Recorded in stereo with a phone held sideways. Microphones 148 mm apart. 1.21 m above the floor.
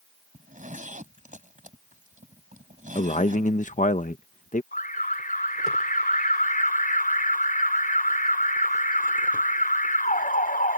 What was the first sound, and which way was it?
A zipper, 60° right (ahead or behind).